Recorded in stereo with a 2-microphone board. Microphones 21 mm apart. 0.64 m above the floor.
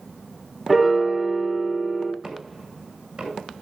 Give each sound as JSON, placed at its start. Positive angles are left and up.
{"t": 0.7, "sound": "a piano", "side_deg": -10, "distance_m": 2.0}
{"t": 2.2, "sound": "knocking", "side_deg": -40, "distance_m": 6.5}